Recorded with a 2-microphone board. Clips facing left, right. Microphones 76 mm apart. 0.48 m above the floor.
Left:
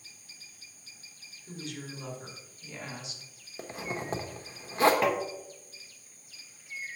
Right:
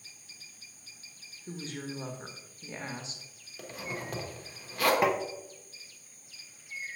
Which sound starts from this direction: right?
A woman speaking, at 1.5 s.